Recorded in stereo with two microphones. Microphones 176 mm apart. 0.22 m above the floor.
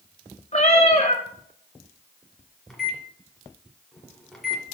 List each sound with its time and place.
0.5 s a cat meowing: 40° left (ahead or behind), 1.1 m
2.7 s a microwave: centre (ahead or behind), 1.5 m